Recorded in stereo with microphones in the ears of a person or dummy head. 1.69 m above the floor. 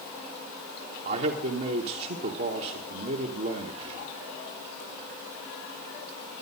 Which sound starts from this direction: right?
A man speaking, at 1.1 s.